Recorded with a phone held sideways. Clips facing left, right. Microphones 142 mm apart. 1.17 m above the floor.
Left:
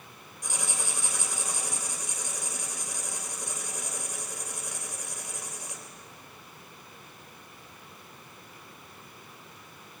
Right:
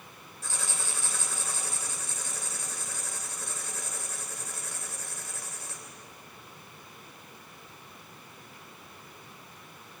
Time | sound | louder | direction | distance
0.4 | writing | left 2 dB | 15° left (ahead or behind) | 3 m